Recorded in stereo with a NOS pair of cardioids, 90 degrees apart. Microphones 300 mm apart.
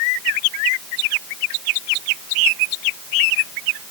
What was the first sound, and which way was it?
Only background noise.